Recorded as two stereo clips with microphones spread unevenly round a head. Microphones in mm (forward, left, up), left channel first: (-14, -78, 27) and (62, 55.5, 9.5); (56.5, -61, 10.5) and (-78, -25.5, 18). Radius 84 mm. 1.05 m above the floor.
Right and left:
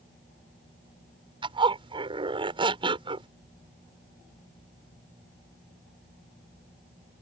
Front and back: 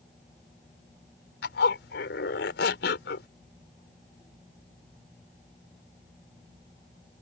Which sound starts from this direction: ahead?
A zipper, at 1.4 s.